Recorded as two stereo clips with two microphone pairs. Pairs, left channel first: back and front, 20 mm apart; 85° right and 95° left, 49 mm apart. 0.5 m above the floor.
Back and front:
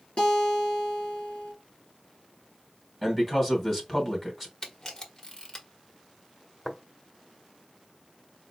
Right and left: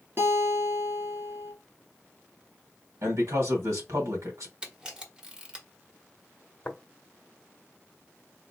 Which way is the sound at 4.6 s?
155° left.